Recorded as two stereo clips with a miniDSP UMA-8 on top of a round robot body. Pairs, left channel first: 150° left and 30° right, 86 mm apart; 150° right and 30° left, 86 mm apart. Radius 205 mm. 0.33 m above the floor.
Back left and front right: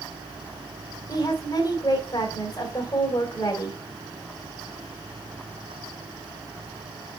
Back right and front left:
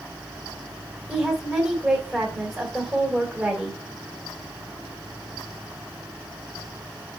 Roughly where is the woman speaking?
Behind left.